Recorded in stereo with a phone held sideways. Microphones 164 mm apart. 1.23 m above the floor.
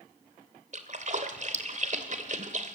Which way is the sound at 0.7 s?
50° right (ahead or behind).